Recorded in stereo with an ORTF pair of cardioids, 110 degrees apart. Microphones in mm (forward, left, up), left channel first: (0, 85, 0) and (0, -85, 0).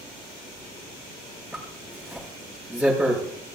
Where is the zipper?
5° right, 6.5 m.